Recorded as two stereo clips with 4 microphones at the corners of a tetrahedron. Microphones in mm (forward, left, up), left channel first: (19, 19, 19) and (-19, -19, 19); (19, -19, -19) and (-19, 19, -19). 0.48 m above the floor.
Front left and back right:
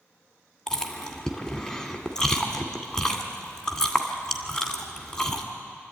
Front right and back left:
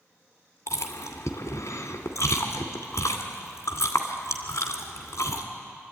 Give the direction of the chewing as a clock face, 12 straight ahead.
1 o'clock.